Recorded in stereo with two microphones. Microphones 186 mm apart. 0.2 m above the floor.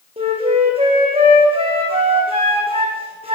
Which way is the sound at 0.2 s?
30° right (ahead or behind).